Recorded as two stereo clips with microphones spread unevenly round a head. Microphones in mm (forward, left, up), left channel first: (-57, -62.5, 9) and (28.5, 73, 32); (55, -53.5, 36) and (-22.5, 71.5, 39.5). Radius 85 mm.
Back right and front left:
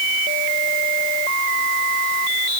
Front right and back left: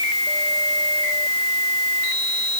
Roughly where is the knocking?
No knocking in this recording.